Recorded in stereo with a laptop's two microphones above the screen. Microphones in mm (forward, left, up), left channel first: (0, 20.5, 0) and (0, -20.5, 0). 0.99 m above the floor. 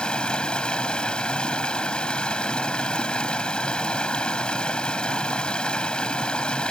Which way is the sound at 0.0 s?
25° left (ahead or behind).